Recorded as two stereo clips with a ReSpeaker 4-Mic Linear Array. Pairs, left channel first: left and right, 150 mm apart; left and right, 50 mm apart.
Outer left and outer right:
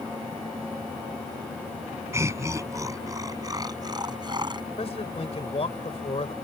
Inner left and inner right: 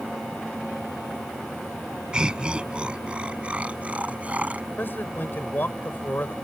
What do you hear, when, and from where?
2.1 s laughter: 20° right (ahead or behind); by 4.7 s 30° right (ahead or behind)
4.8 s a man speaking: 45° left (ahead or behind)